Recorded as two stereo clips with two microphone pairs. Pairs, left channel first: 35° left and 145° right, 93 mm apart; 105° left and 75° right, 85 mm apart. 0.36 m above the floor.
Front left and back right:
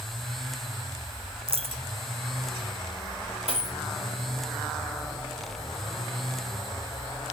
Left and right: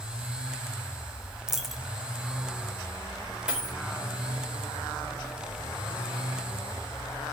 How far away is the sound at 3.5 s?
About 5.5 m.